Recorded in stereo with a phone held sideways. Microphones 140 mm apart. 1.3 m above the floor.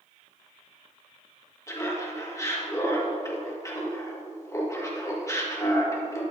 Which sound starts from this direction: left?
Laughter, at 1.7 s.